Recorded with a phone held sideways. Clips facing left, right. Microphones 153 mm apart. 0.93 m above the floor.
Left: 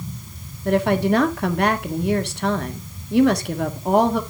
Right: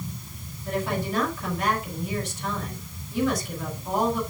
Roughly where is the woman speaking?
Left.